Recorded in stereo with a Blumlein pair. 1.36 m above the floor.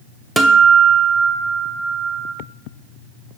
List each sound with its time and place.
0.4 s a guitar: 10° right, 0.7 m